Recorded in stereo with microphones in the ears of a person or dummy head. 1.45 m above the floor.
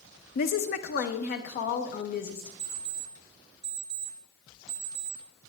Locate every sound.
0.3 s a woman speaking: 50° left (ahead or behind), 0.6 m
2.6 s an alarm clock: 5° right (ahead or behind), 3.5 m